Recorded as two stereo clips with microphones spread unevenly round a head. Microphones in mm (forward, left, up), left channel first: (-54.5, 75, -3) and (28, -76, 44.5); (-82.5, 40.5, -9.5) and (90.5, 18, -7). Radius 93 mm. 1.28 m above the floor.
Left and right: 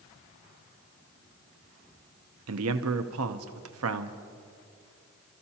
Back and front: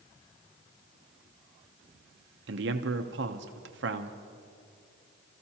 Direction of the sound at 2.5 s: 45° right.